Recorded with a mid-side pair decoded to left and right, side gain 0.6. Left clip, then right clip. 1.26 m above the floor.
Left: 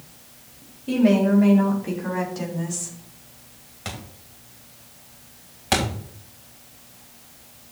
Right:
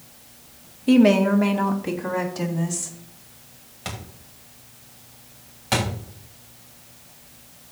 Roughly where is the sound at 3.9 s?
Ahead.